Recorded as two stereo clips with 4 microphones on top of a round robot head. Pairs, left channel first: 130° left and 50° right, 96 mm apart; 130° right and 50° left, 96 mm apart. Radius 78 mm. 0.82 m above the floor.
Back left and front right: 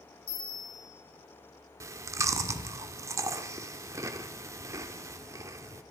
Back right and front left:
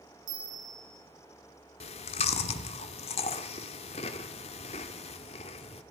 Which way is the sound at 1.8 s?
110° right.